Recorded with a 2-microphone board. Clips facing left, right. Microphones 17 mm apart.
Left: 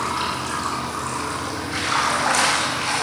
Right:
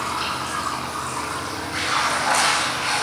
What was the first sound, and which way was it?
Running water, 25° left (ahead or behind).